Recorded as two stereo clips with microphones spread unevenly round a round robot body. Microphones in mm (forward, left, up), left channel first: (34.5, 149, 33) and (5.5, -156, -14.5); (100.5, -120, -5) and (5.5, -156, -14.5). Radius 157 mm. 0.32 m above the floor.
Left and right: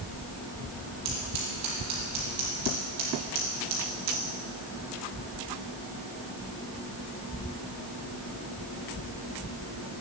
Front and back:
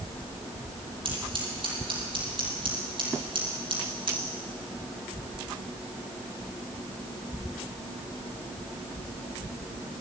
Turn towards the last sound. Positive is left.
turn(degrees=-130)